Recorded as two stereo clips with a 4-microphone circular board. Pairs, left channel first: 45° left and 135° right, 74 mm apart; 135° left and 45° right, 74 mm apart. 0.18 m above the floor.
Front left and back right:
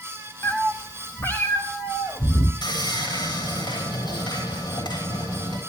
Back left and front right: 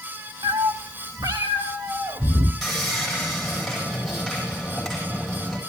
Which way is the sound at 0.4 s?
25° right.